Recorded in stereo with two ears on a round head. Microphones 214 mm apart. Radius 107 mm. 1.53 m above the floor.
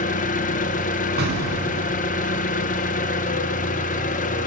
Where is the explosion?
45° right (ahead or behind), 3 m.